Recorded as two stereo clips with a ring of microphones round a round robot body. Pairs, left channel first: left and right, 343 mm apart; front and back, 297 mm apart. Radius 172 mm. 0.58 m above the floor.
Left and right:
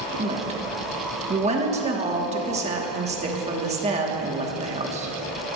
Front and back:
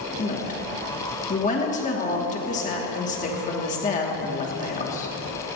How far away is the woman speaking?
About 1.3 m.